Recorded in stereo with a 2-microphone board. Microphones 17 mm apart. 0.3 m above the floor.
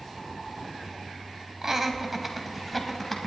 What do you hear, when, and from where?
1.6 s laughter: 25° right (ahead or behind), 1.5 m; by 3.3 s 20° left (ahead or behind), 1.6 m